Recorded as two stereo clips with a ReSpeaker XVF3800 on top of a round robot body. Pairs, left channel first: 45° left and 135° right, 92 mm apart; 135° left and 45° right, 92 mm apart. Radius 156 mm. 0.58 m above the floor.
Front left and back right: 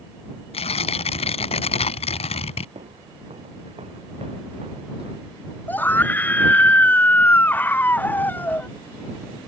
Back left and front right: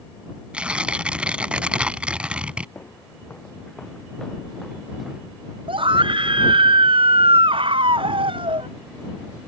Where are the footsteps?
150° right; by 5.2 s 130° right.